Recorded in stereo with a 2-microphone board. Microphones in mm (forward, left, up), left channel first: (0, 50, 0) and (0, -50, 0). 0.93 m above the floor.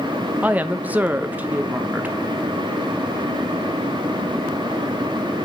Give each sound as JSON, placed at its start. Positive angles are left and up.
{"t": 0.4, "sound": "a woman speaking", "side_deg": -15, "distance_m": 0.8}